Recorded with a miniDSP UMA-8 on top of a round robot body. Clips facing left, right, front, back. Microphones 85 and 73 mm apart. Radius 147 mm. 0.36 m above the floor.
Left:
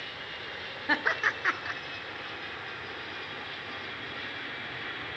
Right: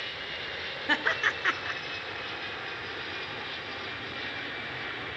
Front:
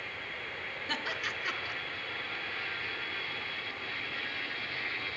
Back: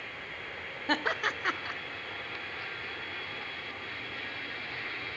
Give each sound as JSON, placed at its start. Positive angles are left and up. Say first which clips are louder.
{"t": 0.9, "sound": "laughter", "louder": "even, back 8 dB", "azimuth_deg": 170, "distance_m": 1.2}